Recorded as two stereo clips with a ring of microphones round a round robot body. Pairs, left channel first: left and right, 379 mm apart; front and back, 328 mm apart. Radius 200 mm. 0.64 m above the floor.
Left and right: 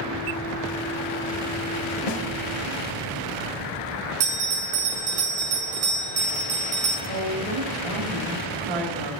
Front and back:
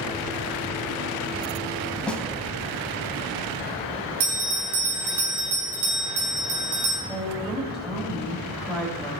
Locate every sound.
2.1 s a snare drum: 85° left, 1.9 m
4.2 s a bell: 140° right, 4 m
7.1 s a woman speaking: 90° right, 3.5 m